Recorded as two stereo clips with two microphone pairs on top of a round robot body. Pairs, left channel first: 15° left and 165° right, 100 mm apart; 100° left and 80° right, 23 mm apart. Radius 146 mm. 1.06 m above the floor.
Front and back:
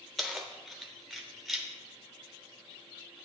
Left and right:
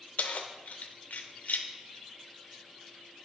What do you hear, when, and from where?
0.2 s keys jangling: 105° left, 0.7 m